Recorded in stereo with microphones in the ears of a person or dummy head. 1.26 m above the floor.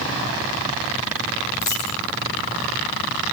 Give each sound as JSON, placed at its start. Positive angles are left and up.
{"t": 1.6, "sound": "a dropped coin", "side_deg": 20, "distance_m": 1.5}